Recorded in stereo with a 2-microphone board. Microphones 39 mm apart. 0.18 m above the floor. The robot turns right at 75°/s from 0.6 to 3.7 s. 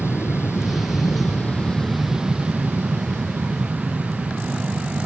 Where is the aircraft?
75° left; by 5.1 s 50° right.